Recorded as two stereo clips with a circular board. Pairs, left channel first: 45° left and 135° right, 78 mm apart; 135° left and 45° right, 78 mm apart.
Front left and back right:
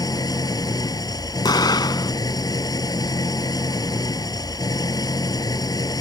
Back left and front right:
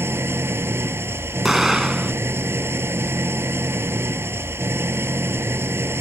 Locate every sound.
0.0 s an engine running: 10° left
1.4 s an explosion: 40° left